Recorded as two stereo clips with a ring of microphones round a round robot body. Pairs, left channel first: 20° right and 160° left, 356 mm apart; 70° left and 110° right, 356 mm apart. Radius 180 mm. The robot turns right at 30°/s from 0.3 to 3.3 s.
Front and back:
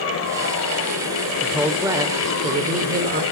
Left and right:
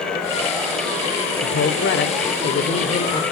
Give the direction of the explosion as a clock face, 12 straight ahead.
No explosion in this recording.